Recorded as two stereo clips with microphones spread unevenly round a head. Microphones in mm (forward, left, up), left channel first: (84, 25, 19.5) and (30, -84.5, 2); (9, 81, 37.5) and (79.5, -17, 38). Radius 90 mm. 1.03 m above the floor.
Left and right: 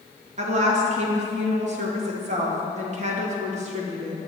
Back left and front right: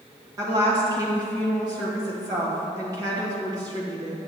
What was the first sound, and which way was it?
A woman speaking, 115° right.